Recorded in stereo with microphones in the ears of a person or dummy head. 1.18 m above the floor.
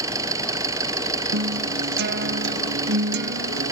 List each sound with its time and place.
0.0 s an engine running: 20° right (ahead or behind)
1.3 s a guitar: 55° right (ahead or behind)